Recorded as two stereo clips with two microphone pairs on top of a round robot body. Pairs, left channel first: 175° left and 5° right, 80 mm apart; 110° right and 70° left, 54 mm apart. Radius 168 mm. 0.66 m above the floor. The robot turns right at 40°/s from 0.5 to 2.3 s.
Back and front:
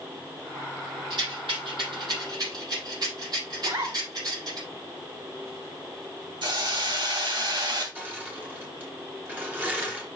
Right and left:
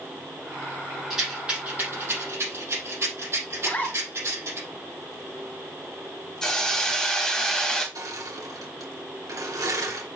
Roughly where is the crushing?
Ahead left.